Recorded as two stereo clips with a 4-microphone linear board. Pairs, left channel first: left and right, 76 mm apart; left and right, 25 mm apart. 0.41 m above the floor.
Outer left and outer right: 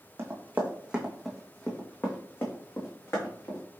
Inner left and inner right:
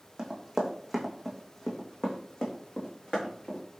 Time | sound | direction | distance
0.2 | running footsteps | 35° right (ahead or behind) | 1.2 m